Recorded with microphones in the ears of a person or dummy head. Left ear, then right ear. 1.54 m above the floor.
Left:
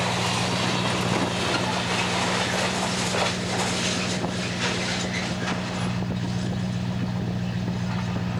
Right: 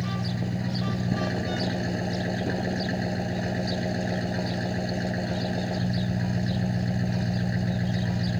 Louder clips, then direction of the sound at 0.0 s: Left 9 dB; 45° right (ahead or behind).